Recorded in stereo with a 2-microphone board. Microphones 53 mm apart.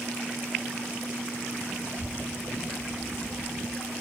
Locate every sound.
1.8 s a child speaking: 70° right (ahead or behind), 2.0 m; by 3.9 s 10° left (ahead or behind), 1.5 m